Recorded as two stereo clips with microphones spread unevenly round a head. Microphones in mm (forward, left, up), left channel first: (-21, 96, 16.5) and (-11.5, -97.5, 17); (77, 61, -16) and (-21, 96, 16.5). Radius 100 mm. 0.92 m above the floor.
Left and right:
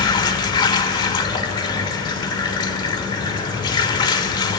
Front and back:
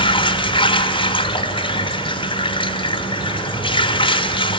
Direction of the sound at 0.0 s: 25° left.